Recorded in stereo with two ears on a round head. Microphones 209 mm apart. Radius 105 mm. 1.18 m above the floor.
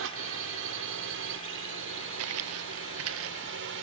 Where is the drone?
55° right (ahead or behind).